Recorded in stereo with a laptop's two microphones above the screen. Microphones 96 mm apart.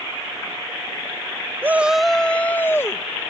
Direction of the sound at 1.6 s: 20° right (ahead or behind).